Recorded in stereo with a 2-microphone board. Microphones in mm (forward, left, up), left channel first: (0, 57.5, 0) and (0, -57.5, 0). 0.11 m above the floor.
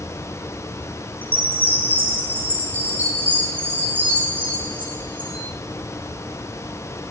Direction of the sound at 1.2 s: 15° right (ahead or behind).